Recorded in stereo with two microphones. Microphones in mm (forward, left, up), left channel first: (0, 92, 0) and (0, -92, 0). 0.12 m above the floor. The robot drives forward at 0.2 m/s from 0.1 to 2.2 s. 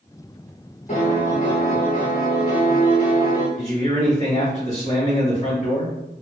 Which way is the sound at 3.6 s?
40° left (ahead or behind).